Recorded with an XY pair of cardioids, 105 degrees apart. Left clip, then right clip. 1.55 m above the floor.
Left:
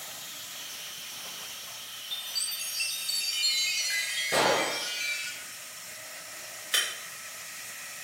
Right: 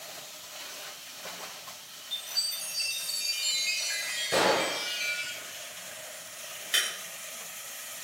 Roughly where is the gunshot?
Ahead.